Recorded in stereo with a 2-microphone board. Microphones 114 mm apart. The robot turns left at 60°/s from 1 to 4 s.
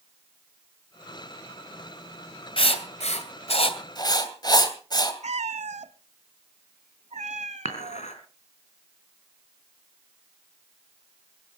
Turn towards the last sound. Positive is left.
turn(degrees=80)